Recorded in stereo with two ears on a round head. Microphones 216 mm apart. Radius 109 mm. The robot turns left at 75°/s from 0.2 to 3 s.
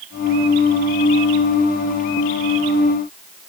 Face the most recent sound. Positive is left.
No sound to turn to.